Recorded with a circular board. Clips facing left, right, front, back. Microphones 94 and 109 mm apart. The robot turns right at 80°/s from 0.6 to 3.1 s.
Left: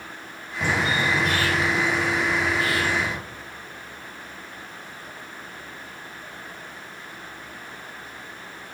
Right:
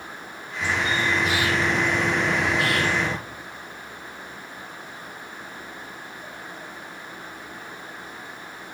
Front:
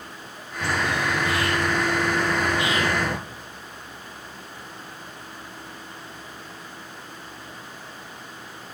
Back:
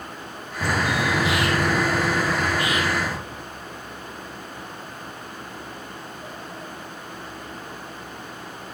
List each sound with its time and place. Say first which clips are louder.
0.6 s a bird: left 1 dB, back 2 dB; 130° left, 1.4 m; by 3.2 s 30° right, 1.4 m